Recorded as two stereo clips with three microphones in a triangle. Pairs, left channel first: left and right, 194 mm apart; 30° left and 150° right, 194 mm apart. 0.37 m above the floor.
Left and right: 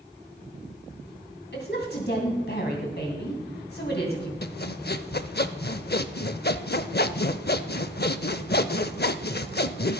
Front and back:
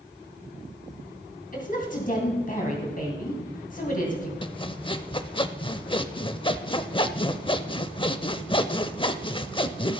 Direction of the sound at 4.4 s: 85° left.